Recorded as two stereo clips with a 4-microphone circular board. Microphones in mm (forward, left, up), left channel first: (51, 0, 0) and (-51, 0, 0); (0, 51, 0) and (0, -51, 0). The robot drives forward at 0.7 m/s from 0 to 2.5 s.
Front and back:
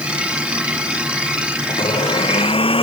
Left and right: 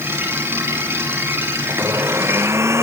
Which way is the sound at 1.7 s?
25° right.